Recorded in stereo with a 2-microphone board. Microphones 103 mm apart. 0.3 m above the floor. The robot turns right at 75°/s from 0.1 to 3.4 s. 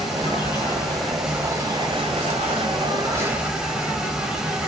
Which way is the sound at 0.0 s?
100° left.